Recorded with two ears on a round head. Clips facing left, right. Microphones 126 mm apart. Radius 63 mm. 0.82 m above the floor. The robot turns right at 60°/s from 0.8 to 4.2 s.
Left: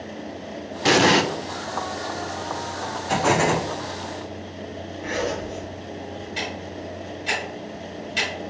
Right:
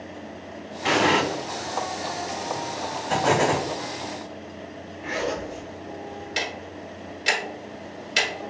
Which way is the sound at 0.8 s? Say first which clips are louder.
Left 3 dB; 45° left (ahead or behind).